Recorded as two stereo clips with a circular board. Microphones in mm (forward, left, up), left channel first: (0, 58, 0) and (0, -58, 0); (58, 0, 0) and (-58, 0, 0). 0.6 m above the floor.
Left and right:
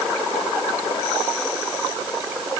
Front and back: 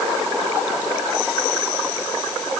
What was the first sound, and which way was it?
Only background noise.